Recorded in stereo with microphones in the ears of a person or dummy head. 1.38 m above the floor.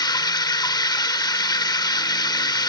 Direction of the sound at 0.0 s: 20° left (ahead or behind).